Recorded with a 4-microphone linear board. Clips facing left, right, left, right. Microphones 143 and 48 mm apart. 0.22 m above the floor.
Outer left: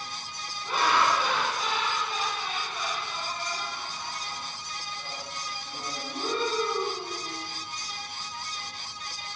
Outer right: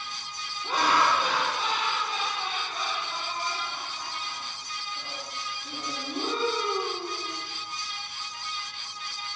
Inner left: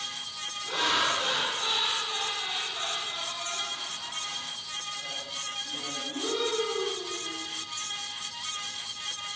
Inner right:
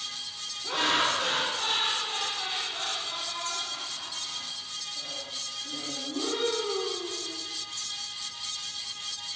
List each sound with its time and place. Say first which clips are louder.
0.6 s laughter: outer right 1 dB, inner right 1 dB; 35° right (ahead or behind), 1.3 m